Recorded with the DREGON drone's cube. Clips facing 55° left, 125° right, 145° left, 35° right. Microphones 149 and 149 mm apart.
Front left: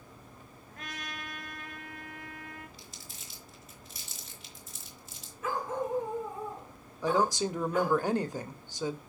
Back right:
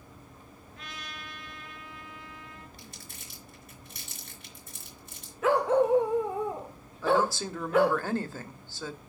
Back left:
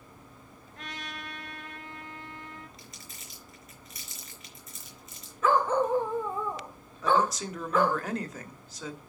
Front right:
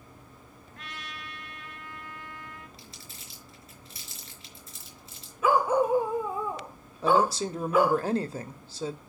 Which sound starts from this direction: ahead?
A woman speaking, at 7.0 s.